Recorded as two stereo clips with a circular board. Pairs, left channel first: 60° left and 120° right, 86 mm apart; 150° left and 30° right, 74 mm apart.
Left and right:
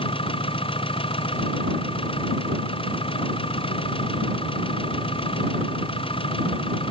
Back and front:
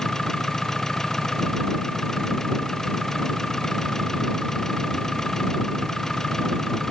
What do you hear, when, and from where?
0.0 s an engine running: 65° left